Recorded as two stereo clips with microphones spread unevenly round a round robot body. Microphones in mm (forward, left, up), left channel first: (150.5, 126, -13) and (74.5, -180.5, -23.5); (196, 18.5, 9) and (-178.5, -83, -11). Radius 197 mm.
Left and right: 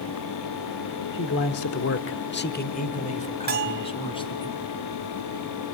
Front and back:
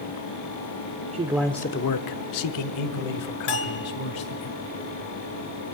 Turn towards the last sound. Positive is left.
turn(degrees=-45)